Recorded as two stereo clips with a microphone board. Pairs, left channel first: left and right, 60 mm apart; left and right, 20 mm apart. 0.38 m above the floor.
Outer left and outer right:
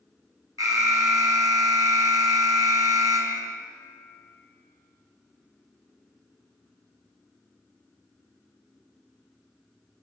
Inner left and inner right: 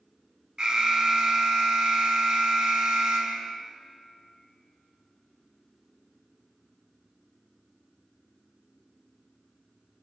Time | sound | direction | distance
0.6 | an alarm | 65° right (ahead or behind) | 4 m